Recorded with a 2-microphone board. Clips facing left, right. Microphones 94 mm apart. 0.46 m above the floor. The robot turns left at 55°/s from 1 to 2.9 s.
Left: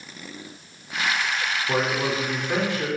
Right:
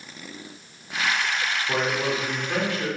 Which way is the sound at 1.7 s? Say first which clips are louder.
Left 1 dB; 15° left (ahead or behind).